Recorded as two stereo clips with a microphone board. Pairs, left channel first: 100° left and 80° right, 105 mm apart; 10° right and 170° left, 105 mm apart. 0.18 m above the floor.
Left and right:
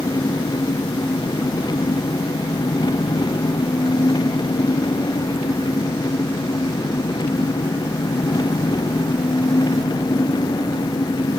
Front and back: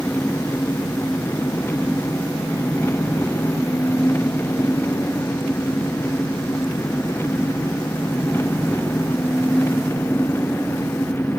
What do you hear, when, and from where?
0.0 s an engine running: 55° left